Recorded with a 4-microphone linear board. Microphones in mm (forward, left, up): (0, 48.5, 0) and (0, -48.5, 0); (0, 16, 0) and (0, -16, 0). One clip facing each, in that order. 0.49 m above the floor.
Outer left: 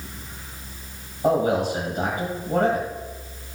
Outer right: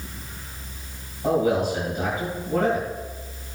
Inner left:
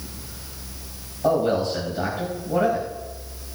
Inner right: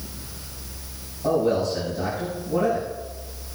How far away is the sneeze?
I don't hear a sneeze.